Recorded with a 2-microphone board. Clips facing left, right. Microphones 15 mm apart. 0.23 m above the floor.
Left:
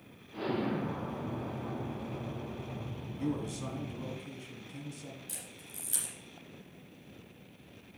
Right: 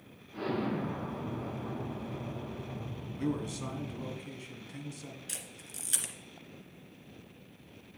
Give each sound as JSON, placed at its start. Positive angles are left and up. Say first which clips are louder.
{"t": 0.3, "sound": "an explosion", "louder": "even", "side_deg": 20, "distance_m": 3.5}
{"t": 3.2, "sound": "a man speaking", "louder": "right 1 dB", "side_deg": -15, "distance_m": 2.0}
{"t": 5.3, "sound": "a camera shutter", "louder": "right 3 dB", "side_deg": -40, "distance_m": 2.0}